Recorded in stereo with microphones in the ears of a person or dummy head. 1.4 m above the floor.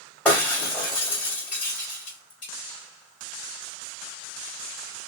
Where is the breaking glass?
5° left (ahead or behind), 3 m.